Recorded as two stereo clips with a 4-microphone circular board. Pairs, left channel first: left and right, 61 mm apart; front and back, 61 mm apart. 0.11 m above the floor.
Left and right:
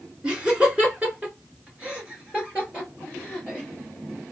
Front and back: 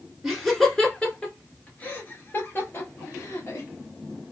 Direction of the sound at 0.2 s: 105° right.